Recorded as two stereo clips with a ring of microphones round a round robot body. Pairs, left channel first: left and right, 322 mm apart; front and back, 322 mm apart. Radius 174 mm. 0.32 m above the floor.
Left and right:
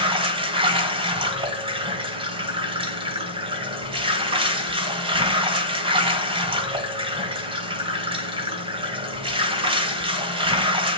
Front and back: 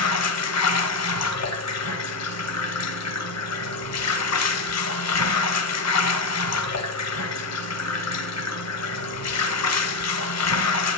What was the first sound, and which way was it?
Running water, 20° right.